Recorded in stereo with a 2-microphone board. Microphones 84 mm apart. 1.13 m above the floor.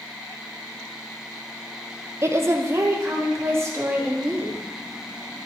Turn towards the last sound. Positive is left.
turn(degrees=-30)  # may be behind; listen again after turning